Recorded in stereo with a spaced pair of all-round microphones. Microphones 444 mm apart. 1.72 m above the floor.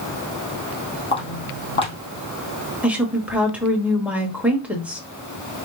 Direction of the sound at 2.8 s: 5° right (ahead or behind).